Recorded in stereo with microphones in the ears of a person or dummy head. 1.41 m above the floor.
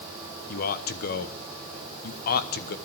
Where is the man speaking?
50° left (ahead or behind), 1.1 m.